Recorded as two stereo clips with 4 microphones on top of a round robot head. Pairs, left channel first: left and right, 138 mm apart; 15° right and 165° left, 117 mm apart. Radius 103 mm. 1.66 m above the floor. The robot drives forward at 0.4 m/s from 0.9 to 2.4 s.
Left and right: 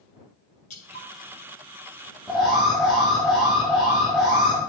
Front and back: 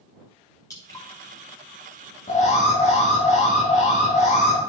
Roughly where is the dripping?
Ahead left.